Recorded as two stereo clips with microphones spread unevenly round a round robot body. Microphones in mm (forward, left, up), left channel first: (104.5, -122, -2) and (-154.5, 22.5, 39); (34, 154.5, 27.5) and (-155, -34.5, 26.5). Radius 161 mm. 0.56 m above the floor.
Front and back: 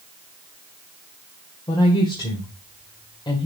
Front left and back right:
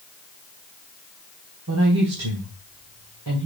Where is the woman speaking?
100° right, 2.0 m.